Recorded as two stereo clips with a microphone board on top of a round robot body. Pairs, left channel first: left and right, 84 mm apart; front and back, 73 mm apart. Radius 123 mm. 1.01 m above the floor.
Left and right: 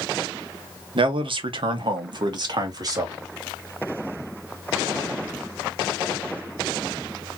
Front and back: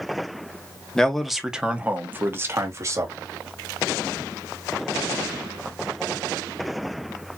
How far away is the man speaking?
About 1.3 m.